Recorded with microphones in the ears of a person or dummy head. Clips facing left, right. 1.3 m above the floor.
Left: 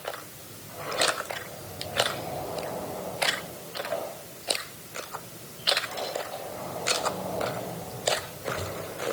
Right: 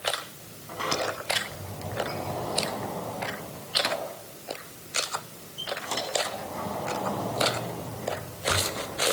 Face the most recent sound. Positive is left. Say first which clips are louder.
# even
turn(degrees=-75)  # may be behind; listen again after turning